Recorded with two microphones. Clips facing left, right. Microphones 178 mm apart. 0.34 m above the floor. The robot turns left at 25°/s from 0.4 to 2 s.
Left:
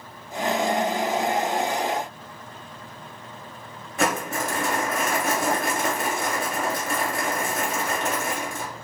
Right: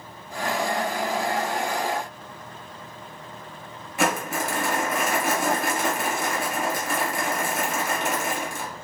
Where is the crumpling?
5° right (ahead or behind), 2.5 m.